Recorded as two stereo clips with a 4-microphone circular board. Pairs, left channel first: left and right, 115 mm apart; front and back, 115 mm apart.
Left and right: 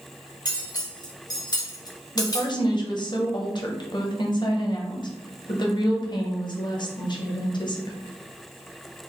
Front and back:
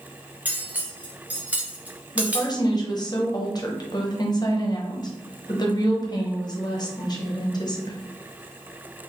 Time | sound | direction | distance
0.5 | cutlery clinking | 110° left | 0.8 m
2.1 | a woman speaking | 50° left | 0.9 m